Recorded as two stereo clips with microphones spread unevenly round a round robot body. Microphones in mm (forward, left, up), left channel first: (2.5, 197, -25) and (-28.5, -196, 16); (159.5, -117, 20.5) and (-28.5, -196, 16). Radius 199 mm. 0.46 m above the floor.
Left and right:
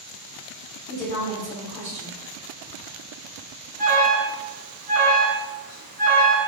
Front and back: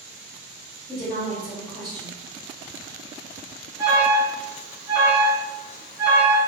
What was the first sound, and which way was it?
A woman speaking, 45° left.